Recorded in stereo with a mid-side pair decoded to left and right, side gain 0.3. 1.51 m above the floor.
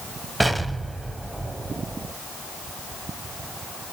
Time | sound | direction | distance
0.4 | an explosion | 10° right | 1.0 m